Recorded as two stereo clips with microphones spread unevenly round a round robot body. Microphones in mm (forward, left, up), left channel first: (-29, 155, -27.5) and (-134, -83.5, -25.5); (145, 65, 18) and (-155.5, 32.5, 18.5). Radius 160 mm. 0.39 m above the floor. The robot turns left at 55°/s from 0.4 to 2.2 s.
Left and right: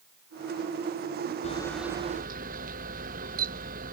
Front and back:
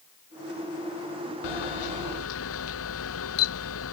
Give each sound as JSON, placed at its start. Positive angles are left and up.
{"t": 1.4, "sound": "a camera shutter", "azimuth_deg": -5}